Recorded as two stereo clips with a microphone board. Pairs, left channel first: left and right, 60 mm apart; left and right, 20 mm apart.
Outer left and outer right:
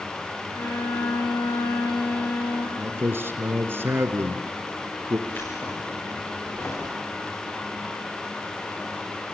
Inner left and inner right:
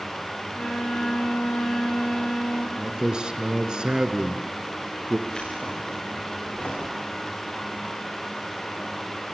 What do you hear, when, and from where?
0.5 s a violin: 70° left (ahead or behind), 7 m
2.8 s a man speaking: 40° right (ahead or behind), 2.5 m
5.3 s keys jangling: 45° left (ahead or behind), 9 m